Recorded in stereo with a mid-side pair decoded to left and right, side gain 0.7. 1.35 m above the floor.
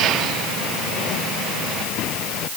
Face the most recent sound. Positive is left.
No sound to turn to.